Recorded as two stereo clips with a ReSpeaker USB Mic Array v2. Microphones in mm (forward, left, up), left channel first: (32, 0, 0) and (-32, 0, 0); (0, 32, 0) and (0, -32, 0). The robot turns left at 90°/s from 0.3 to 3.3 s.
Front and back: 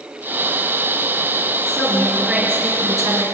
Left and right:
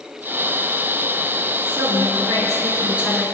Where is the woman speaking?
45° right, 4.5 m; by 3.2 s 175° left, 4.5 m.